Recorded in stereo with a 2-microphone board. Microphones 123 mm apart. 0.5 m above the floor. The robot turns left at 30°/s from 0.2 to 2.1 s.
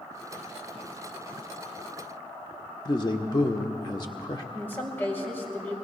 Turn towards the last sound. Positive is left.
turn(degrees=15)  # may be behind; listen again after turning